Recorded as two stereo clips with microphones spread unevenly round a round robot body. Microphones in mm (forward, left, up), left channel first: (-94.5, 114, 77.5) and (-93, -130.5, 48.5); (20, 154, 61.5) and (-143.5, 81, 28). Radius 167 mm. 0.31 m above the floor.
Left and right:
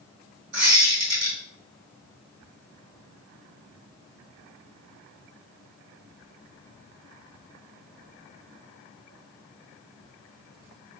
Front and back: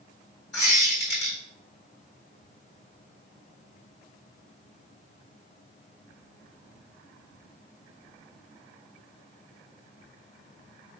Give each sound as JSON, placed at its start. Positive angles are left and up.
{"t": 0.5, "sound": "a squeak", "azimuth_deg": -30, "distance_m": 1.9}